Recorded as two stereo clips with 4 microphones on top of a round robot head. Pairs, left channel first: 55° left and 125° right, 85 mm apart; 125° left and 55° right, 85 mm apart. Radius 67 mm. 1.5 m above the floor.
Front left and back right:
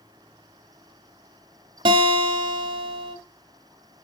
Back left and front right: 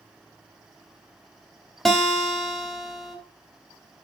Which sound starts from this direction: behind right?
A guitar, at 1.9 s.